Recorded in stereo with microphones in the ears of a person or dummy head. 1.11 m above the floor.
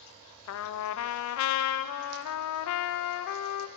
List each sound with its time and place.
0.5 s a trumpet: 80° left, 0.5 m